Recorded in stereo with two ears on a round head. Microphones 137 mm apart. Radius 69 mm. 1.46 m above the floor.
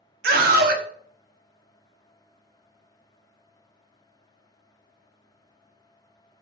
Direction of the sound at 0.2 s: 70° right (ahead or behind).